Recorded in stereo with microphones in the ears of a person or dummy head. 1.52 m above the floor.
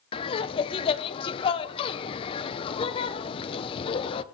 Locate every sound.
0.1 s laughter: 30° left (ahead or behind), 0.9 m